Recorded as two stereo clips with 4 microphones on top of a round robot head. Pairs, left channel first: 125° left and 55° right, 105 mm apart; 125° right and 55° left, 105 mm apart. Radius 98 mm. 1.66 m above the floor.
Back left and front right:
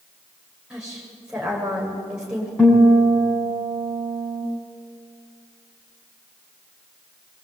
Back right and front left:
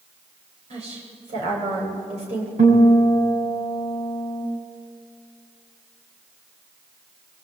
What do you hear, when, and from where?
0.7 s a woman speaking: 30° left, 9 m
2.6 s a guitar: 45° left, 6.5 m